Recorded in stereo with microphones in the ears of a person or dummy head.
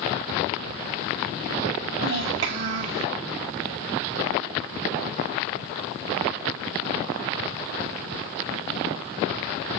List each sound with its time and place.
2.0 s a child speaking: 65° right (ahead or behind), 2.0 m